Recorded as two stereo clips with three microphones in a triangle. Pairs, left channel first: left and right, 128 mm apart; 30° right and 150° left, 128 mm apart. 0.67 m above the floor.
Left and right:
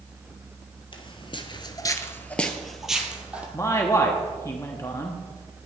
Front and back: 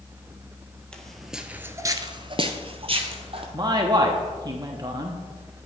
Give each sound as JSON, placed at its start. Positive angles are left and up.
{"t": 0.9, "sound": "footsteps", "azimuth_deg": 50, "distance_m": 1.0}
{"t": 3.5, "sound": "a man speaking", "azimuth_deg": 140, "distance_m": 0.9}